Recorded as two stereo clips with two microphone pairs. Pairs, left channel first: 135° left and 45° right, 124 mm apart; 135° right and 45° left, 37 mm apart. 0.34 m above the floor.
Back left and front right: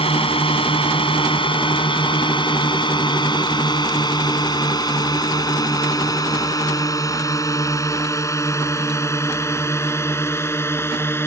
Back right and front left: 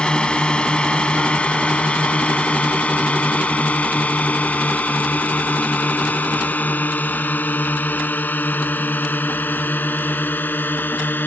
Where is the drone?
165° left; by 11.3 s 155° right.